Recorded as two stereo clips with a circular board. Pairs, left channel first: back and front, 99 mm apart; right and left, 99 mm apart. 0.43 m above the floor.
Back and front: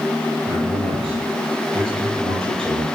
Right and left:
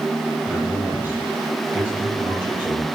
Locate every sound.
0.5 s a man speaking: 20° left, 10 m